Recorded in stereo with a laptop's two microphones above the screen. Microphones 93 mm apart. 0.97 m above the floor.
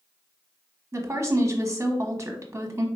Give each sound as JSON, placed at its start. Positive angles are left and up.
{"t": 0.9, "sound": "a woman speaking", "side_deg": -30, "distance_m": 1.0}